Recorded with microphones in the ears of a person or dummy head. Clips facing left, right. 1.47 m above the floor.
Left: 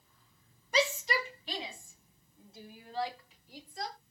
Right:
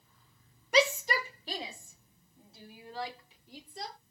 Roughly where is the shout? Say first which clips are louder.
Right 3 dB; right.